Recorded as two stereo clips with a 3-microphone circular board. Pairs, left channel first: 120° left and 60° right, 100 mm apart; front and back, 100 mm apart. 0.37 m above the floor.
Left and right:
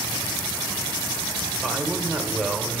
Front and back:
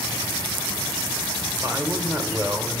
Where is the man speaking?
140° right, 1.1 m.